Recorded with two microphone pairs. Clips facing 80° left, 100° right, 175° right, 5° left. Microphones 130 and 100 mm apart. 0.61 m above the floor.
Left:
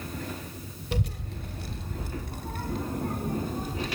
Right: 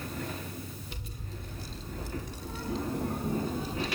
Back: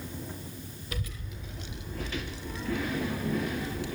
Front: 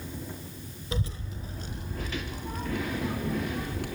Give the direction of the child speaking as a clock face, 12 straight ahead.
10 o'clock.